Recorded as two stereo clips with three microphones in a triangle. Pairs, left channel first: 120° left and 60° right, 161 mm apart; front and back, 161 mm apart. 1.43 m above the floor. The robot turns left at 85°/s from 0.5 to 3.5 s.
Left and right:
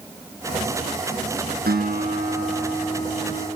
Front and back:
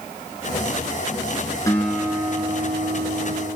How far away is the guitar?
About 7 m.